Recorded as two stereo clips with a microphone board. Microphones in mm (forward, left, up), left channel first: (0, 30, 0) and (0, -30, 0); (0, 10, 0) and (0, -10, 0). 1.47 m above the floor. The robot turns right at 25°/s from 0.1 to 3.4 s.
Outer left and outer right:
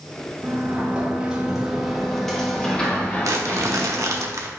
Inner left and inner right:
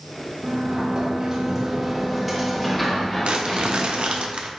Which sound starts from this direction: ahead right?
A sliding door, at 0.4 s.